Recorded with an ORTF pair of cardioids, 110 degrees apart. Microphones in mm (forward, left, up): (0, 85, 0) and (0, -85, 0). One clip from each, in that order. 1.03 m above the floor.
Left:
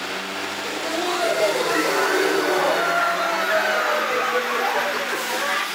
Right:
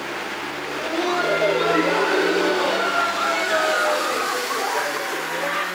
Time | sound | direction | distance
0.6 | laughter | 25° right | 4.5 m